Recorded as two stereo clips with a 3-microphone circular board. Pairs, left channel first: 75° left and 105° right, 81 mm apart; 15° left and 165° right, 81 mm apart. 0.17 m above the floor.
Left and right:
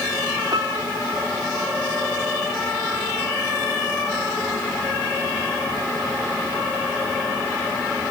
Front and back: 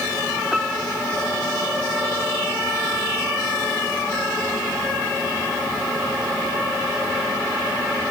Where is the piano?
80° right.